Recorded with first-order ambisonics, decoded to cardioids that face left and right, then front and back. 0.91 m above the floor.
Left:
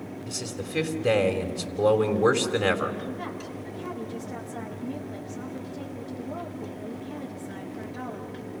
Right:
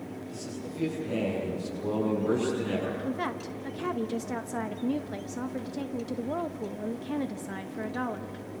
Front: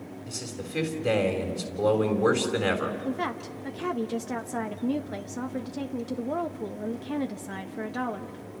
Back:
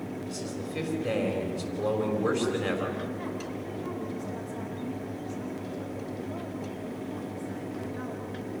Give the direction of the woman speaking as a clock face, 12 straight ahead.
1 o'clock.